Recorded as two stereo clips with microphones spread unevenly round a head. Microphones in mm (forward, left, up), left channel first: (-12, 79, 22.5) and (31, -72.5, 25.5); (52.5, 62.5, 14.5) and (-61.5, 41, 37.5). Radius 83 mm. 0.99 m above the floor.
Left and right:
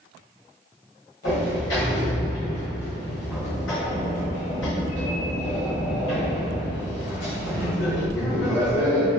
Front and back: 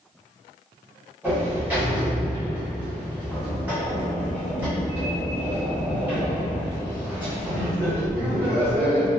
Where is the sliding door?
115° left, 1.3 m.